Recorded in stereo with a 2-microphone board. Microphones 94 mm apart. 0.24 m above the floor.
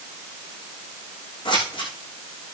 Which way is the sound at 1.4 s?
55° left (ahead or behind).